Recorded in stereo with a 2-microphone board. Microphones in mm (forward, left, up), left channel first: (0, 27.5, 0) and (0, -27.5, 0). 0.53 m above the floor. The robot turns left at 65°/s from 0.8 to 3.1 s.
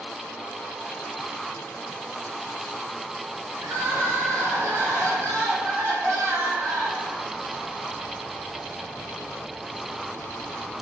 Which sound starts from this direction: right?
Crying, at 3.6 s.